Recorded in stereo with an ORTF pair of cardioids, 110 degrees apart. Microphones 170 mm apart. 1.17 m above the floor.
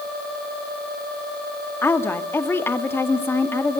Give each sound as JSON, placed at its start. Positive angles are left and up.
{"t": 1.8, "sound": "a woman speaking", "azimuth_deg": 15, "distance_m": 2.0}